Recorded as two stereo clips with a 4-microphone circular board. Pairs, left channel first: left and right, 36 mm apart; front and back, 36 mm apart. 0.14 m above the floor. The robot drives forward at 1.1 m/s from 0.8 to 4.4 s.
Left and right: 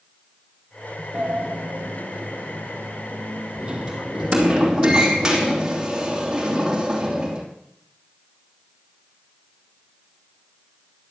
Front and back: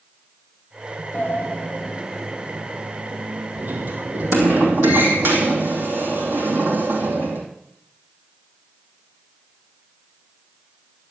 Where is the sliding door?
35° right, 1.5 m; by 7.4 s 160° right, 2.5 m.